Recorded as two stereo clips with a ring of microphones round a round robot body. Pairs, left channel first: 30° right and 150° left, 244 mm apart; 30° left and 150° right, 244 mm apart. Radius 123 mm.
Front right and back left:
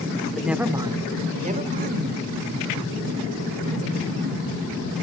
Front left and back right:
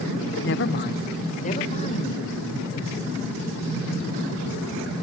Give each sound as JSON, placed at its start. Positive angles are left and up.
{"t": 0.4, "sound": "a woman speaking", "azimuth_deg": 60, "distance_m": 2.0}